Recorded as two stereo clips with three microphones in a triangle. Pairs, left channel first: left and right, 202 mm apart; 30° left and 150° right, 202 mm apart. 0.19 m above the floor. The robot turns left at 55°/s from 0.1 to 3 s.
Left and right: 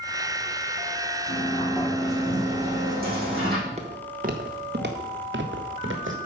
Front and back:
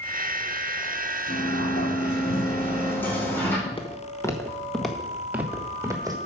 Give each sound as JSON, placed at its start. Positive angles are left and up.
{"t": 1.3, "sound": "a sliding door", "azimuth_deg": 45, "distance_m": 5.0}
{"t": 3.7, "sound": "footsteps", "azimuth_deg": -30, "distance_m": 1.4}